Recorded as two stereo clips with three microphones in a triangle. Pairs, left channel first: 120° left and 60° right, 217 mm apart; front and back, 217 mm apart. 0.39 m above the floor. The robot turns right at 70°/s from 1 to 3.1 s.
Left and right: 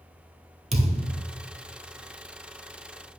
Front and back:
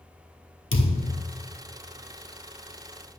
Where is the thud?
5° right, 1.3 m; by 1.2 s 15° left, 1.3 m.